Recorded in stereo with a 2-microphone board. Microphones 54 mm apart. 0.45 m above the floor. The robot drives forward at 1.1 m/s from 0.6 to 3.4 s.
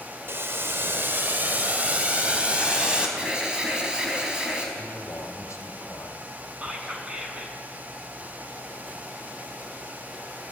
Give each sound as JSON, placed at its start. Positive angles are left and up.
{"t": 0.3, "sound": "boiling", "side_deg": -50, "distance_m": 1.7}
{"t": 3.2, "sound": "an alarm", "side_deg": -20, "distance_m": 4.0}
{"t": 4.8, "sound": "a man speaking", "side_deg": 70, "distance_m": 2.5}
{"t": 6.6, "sound": "whispering", "side_deg": -20, "distance_m": 4.5}